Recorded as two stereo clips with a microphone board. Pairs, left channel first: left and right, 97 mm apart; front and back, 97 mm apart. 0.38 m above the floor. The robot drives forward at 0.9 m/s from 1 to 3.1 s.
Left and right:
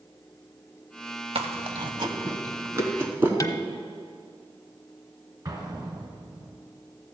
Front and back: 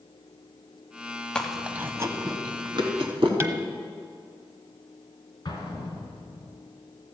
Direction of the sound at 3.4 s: 125° left.